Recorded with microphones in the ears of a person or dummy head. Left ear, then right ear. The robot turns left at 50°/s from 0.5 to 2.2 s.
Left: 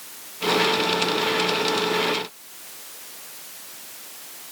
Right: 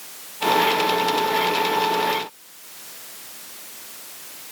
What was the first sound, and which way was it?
Only background noise.